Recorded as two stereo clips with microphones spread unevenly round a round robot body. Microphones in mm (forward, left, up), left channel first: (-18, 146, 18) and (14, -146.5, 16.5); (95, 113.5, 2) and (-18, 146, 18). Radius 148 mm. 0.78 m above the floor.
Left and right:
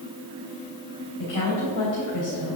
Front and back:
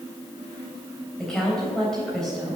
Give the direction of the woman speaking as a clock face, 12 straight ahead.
10 o'clock.